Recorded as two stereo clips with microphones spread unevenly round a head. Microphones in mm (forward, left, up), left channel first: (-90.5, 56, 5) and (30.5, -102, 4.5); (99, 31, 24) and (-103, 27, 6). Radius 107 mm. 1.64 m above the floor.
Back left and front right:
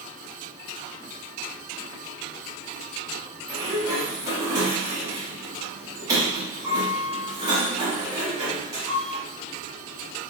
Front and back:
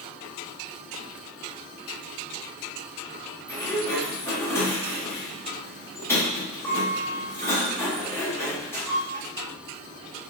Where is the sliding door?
25° right, 1.0 m.